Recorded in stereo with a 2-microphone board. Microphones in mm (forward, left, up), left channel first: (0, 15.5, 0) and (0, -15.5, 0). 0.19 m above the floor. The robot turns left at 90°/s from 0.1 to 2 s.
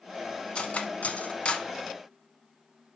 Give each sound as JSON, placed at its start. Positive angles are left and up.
{"t": 0.6, "sound": "cutlery clinking", "side_deg": 35, "distance_m": 1.1}